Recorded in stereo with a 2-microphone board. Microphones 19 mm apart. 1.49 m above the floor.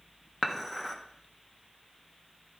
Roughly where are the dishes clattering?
Centre.